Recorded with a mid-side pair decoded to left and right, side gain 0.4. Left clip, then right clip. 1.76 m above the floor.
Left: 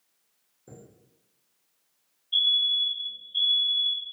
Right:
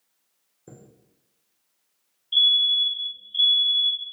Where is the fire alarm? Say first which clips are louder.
Right 4 dB; 60° right, 1.6 m.